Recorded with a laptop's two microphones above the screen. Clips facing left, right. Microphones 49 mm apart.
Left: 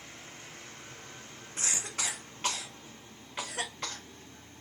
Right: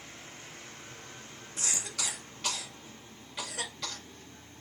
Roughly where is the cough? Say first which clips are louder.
Left 1 dB; left.